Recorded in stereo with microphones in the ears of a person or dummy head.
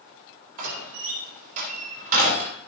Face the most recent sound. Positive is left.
turn(degrees=-50)  # may be behind; listen again after turning